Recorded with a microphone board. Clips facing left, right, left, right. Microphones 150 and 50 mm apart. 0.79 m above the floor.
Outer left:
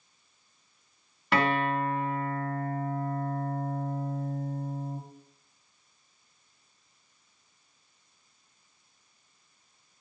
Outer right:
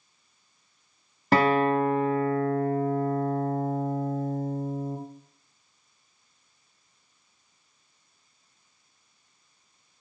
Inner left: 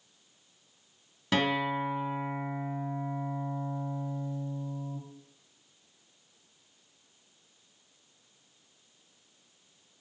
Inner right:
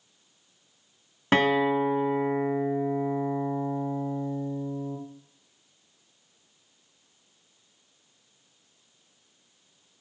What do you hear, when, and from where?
1.3 s a guitar: 40° right (ahead or behind), 0.8 m